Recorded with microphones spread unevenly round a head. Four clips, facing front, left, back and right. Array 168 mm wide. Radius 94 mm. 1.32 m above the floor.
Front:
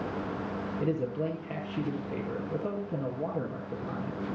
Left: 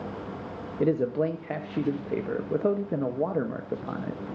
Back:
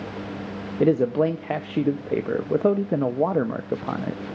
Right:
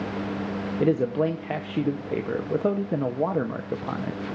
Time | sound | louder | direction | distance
0.8 | a man speaking | right 2 dB, back 12 dB | 175° left | 0.6 m